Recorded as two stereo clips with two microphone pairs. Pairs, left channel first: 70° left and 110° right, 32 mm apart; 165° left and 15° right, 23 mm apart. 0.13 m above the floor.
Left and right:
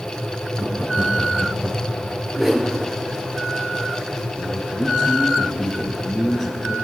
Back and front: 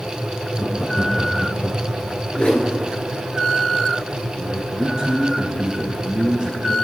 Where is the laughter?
170° right, 4 m; by 2.0 s straight behind, 4.5 m.